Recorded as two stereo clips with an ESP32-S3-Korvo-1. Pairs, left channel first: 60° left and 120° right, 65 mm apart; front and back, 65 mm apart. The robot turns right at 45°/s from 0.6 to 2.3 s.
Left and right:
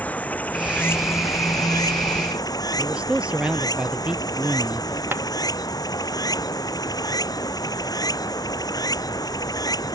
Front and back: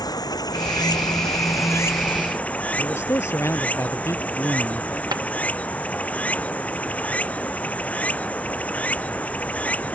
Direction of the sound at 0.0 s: 5° right.